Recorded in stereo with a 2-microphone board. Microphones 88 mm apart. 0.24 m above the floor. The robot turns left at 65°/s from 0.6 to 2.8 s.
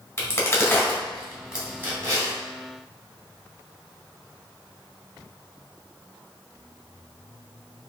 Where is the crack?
30° left (ahead or behind), 1.9 m; by 2.3 s 40° right (ahead or behind), 1.9 m.